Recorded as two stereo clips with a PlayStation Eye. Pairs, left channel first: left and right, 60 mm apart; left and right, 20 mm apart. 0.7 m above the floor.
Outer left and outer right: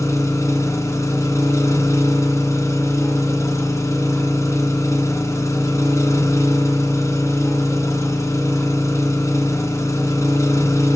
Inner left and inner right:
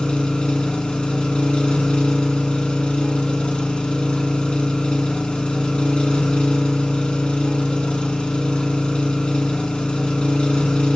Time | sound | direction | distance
0.0 | an engine running | 55° left (ahead or behind) | 2 m